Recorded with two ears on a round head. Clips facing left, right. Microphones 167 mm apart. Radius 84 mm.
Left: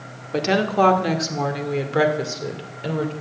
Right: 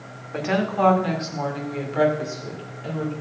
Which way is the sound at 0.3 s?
50° left (ahead or behind).